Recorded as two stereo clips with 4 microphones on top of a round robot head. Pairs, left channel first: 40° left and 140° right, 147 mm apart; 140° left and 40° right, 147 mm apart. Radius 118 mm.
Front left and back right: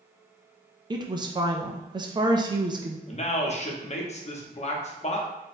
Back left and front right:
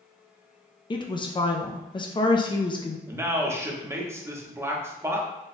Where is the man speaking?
25° left, 1.0 m.